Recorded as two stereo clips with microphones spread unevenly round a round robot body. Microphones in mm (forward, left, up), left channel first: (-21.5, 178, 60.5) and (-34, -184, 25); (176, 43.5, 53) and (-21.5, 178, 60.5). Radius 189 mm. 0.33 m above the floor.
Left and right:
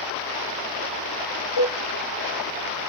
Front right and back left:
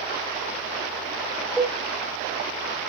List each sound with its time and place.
1.6 s a cowbell: 55° left, 9.5 m